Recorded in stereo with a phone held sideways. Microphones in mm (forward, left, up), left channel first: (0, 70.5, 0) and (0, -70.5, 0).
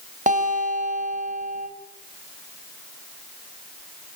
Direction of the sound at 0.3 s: 60° right (ahead or behind).